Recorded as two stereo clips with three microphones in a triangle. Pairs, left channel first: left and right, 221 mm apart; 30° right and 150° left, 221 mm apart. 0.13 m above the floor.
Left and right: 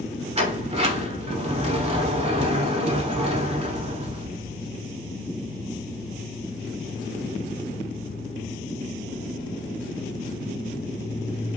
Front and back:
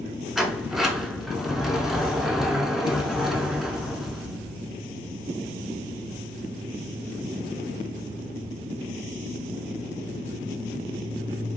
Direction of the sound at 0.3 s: 125° right.